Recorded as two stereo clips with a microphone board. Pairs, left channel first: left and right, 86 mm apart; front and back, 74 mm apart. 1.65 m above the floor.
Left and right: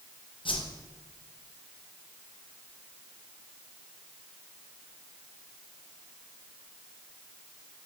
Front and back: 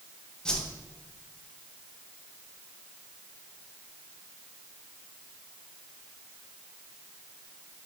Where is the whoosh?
80° left, 0.6 m.